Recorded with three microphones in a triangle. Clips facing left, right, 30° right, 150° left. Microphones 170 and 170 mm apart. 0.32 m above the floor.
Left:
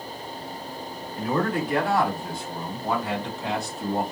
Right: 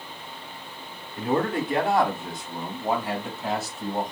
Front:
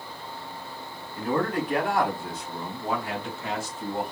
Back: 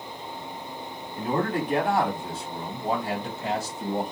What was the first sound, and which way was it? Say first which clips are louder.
A man speaking: right 1 dB, even; 145° right.